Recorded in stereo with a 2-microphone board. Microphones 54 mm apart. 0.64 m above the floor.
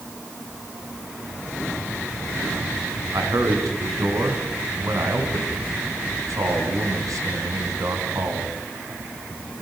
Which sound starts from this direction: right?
A man speaking, at 3.1 s.